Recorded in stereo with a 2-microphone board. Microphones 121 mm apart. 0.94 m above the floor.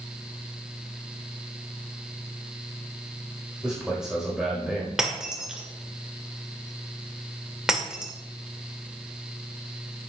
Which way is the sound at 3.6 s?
5° right (ahead or behind).